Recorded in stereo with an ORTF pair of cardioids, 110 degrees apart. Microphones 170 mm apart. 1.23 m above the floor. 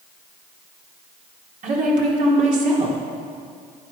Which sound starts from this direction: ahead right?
A woman speaking, at 1.6 s.